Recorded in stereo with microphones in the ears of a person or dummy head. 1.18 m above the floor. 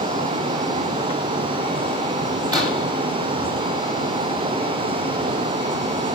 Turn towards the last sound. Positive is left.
turn(degrees=-25)  # may be behind; listen again after turning